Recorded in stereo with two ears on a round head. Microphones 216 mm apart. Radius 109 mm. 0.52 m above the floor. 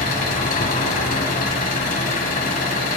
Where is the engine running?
35° left (ahead or behind), 1.6 m.